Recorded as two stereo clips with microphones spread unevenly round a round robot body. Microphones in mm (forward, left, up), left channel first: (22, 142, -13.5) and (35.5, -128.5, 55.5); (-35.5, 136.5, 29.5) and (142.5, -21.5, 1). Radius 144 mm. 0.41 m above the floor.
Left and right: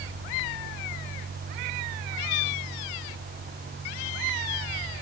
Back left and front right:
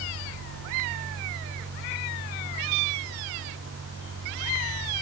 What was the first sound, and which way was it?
Only background noise.